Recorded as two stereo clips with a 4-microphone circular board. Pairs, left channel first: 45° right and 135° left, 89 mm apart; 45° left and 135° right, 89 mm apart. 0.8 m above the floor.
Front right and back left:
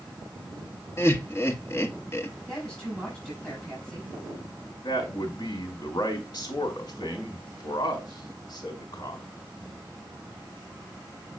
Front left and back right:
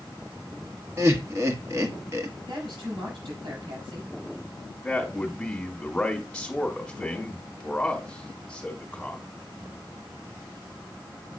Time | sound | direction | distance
1.0 | laughter | 95° right | 1.2 m
2.5 | a woman speaking | 130° right | 6 m
4.8 | a man speaking | 35° right | 1.9 m